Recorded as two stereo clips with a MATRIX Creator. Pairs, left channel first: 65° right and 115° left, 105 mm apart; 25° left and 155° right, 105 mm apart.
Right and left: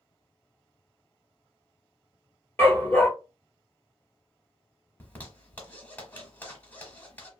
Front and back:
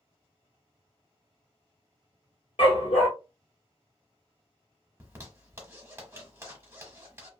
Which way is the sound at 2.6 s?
5° left.